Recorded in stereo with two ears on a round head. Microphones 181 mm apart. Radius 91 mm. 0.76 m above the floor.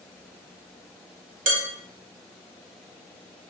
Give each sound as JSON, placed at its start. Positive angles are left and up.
{"t": 1.5, "sound": "dishes clattering", "side_deg": -45, "distance_m": 1.3}